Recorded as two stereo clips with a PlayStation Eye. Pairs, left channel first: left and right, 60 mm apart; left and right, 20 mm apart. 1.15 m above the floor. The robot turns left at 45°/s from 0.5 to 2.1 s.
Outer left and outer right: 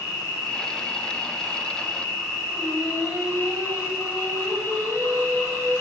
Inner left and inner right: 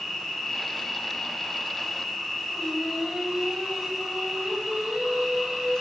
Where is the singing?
70° right (ahead or behind), 1.6 m.